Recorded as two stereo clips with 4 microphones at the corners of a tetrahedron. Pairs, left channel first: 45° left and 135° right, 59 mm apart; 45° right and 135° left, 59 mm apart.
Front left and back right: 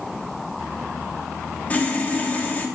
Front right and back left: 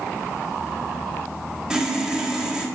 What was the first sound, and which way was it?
Sawing, 70° left.